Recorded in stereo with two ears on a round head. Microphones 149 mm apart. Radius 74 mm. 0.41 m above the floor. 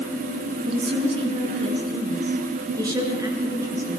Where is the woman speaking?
35° right (ahead or behind), 5.5 m; by 4.0 s 15° right (ahead or behind), 6.5 m.